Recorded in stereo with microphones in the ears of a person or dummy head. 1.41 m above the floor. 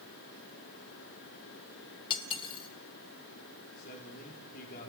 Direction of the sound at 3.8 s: 45° left (ahead or behind).